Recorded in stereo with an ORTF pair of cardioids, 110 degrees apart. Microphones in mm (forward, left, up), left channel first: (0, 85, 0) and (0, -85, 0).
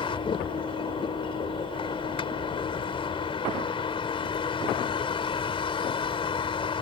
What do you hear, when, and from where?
0.0 s a vehicle: 30° left